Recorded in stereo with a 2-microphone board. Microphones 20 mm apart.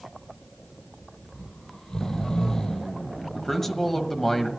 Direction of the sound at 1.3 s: 40° left (ahead or behind).